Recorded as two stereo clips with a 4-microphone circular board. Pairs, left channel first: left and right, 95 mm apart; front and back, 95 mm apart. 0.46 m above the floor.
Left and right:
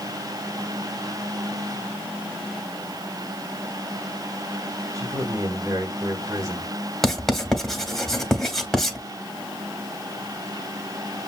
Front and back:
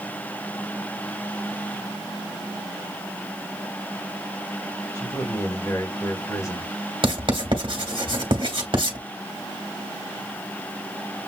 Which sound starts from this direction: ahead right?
A man speaking, at 5.0 s.